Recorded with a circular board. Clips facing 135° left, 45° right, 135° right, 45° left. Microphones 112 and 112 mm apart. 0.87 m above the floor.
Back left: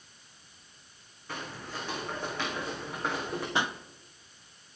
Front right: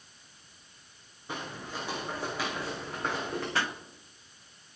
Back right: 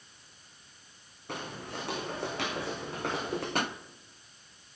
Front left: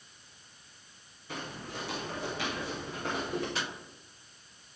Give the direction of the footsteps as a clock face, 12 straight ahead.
4 o'clock.